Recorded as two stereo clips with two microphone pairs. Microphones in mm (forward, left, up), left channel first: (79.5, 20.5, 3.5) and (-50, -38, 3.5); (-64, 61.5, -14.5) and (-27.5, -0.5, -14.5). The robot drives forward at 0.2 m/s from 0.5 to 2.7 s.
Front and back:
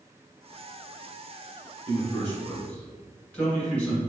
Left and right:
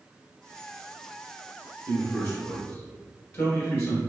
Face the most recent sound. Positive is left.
turn(degrees=100)